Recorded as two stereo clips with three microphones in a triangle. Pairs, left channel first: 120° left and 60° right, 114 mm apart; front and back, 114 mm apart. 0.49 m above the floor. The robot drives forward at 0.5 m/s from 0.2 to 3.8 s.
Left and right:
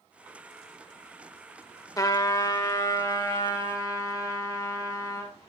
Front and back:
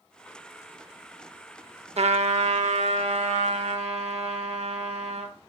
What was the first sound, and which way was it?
A trumpet, 175° left.